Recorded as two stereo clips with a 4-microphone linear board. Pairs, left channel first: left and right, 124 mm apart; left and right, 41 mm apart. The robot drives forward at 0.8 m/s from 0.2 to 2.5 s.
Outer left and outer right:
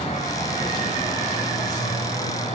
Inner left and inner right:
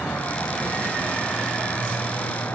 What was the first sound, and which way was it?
An insect, 70° left (ahead or behind).